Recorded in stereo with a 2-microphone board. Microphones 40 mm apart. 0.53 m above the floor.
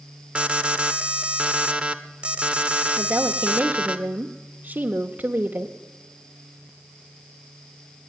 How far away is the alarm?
About 1.3 m.